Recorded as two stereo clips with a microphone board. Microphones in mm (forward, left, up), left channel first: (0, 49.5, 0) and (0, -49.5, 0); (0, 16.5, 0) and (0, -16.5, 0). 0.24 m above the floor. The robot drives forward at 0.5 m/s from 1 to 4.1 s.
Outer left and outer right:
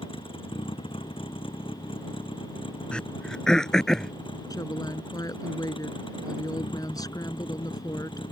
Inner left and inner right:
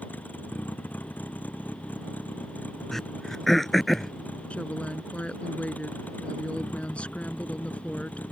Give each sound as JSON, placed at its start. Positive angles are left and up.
{"t": 0.0, "sound": "a vehicle", "side_deg": 60}
{"t": 2.9, "sound": "throat clearing", "side_deg": 10}
{"t": 4.5, "sound": "a woman speaking", "side_deg": 40}